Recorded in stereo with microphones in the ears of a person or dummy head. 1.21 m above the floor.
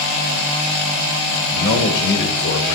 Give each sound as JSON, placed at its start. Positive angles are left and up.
{"t": 1.5, "sound": "a man speaking", "side_deg": 40, "distance_m": 1.1}